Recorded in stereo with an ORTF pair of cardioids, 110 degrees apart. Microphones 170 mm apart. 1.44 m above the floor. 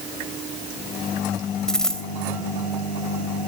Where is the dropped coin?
5° left, 3.5 m.